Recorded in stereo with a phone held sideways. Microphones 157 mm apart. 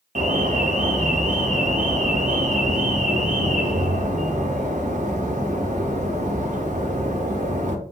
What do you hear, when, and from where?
0.1 s an alarm: 55° right (ahead or behind), 0.9 m